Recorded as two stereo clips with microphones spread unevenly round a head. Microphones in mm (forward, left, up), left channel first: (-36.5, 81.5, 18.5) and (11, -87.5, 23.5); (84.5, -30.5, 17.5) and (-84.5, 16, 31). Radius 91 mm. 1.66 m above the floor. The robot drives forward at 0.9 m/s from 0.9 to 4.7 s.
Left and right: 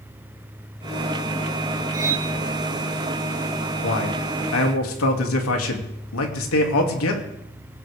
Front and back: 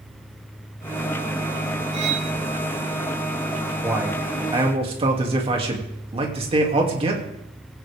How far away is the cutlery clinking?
About 2.0 m.